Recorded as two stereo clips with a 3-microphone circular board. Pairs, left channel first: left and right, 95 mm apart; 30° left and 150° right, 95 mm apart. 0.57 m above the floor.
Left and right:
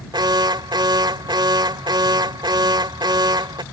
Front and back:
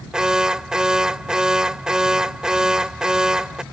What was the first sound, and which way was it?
An alarm, 70° right.